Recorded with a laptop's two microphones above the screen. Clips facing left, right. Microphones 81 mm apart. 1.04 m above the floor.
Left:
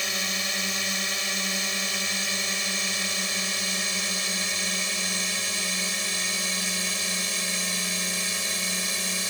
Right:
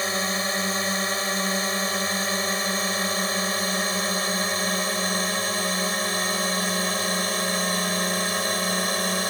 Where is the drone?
40° right (ahead or behind); by 9.3 s 50° right (ahead or behind).